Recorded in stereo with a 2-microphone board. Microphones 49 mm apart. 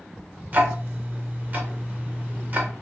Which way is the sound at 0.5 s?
35° right (ahead or behind).